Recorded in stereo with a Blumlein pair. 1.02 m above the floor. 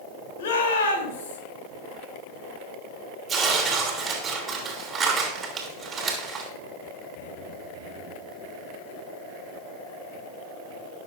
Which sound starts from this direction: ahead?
Tearing paper, at 3.3 s.